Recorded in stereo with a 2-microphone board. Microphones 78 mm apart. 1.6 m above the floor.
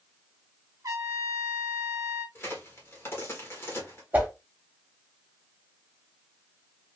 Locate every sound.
0.8 s a trumpet: 50° right (ahead or behind), 0.9 m
2.4 s a crack: 35° left (ahead or behind), 1.2 m
4.1 s a whoosh: 25° right (ahead or behind), 0.9 m